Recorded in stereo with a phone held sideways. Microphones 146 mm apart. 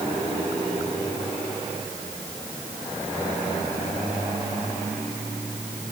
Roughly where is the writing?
I don't hear writing.